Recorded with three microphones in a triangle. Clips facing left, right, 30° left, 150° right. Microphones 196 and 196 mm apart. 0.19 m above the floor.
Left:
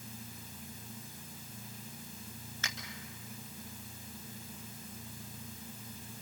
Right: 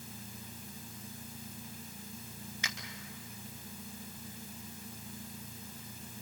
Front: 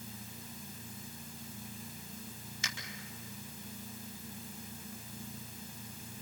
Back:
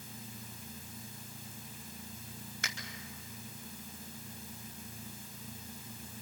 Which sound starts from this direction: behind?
A finger snap, at 2.6 s.